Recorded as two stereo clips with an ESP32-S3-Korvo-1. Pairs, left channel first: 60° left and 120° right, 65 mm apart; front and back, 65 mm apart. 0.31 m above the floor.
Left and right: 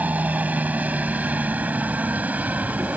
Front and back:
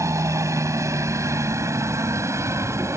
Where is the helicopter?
175° right.